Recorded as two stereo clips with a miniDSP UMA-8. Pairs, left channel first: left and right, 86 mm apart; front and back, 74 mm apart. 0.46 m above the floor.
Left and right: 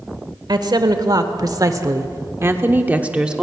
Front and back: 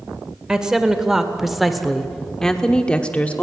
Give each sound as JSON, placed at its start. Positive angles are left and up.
{"t": 0.5, "sound": "a woman speaking", "azimuth_deg": -105, "distance_m": 1.8}